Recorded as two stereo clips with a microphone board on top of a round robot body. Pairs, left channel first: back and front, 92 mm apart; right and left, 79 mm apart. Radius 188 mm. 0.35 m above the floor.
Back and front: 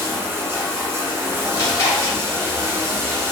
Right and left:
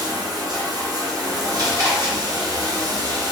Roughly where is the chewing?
Behind left.